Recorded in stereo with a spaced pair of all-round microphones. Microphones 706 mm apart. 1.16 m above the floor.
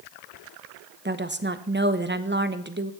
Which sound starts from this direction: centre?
A woman speaking, at 1.1 s.